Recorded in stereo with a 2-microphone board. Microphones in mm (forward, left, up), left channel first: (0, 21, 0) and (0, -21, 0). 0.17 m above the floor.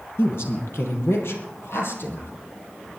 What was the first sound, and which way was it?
A woman speaking, 65° left (ahead or behind).